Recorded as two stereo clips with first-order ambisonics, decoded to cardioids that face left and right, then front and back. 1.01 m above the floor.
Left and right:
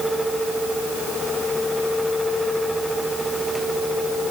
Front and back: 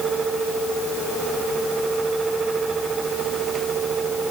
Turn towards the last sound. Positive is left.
No sound to turn to.